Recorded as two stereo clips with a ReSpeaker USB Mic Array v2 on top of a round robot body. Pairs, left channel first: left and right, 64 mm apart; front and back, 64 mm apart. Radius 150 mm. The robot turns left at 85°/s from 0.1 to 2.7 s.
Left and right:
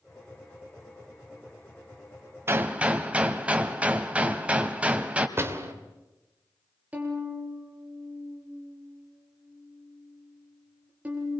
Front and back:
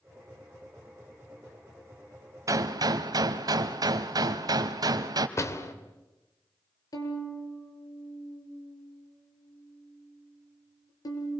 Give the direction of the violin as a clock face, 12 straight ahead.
1 o'clock.